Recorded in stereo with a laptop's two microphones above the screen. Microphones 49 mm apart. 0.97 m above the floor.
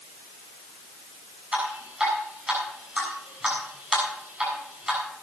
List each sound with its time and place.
1.5 s dripping: 15° right (ahead or behind), 7 m